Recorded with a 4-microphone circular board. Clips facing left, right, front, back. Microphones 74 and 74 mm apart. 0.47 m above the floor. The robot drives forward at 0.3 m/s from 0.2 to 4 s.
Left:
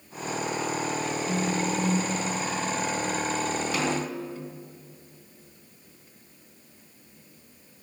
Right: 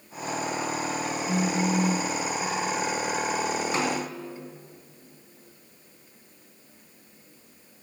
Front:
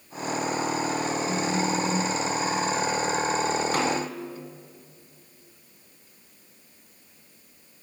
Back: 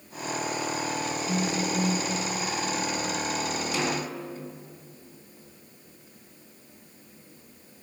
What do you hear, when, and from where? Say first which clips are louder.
1.3 s a phone buzzing: right 3 dB, even; 45° right, 4 m
3.7 s a snare drum: even, front 3 dB; 35° right, 2.5 m